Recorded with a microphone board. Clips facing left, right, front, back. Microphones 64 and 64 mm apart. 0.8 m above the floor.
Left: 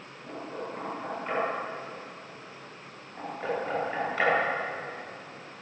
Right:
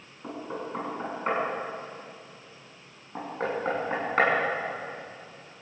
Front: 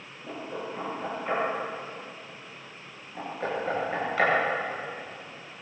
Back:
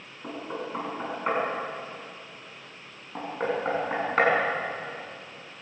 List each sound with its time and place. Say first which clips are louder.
0.2 s knocking: right 2 dB, back 1 dB; 135° right, 7.5 m